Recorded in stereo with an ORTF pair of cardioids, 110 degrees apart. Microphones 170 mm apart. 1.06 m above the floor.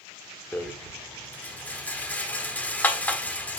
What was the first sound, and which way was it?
A rattle, 10° left.